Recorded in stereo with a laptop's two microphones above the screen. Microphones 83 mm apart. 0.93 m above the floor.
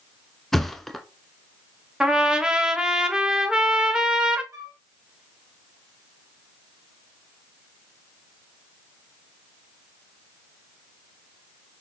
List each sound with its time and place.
0.5 s a thud: 5° left (ahead or behind), 1.2 m
2.0 s a trumpet: 10° right (ahead or behind), 1.3 m
4.5 s a flute: 40° right (ahead or behind), 4.5 m